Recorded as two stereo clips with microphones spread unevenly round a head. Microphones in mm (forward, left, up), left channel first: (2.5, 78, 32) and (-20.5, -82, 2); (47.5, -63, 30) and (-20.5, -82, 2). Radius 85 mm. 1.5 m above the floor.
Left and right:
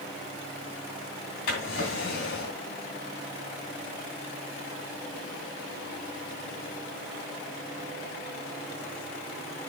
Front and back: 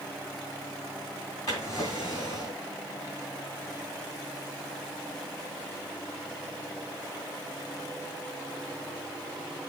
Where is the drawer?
60° left, 3 m.